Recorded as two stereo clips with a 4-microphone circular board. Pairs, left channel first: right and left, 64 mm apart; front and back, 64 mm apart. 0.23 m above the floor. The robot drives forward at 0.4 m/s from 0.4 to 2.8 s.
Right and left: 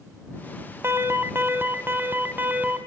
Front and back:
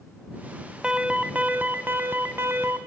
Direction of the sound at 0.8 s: 110° left.